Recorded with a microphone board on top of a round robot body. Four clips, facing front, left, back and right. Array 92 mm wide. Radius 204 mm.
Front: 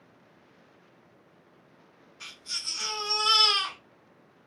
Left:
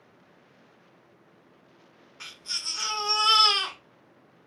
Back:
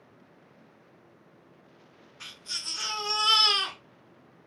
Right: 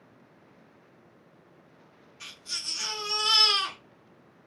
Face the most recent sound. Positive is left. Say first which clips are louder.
# left 2 dB, even
turn(degrees=95)